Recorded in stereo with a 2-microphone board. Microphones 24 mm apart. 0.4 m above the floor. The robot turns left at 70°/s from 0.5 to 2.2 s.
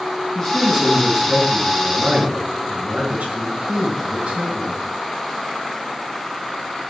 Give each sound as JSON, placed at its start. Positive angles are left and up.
{"t": 0.3, "sound": "a man speaking", "azimuth_deg": 25, "distance_m": 4.0}